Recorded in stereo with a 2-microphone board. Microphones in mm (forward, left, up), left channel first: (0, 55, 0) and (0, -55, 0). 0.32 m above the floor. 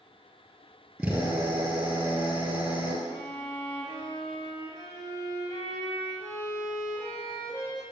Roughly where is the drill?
Centre.